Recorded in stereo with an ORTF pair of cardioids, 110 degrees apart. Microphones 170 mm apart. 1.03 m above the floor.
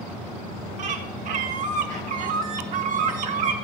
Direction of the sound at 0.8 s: 50° right.